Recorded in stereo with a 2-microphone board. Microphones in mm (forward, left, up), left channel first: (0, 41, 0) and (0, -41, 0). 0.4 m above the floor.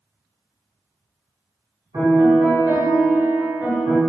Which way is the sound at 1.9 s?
40° right (ahead or behind).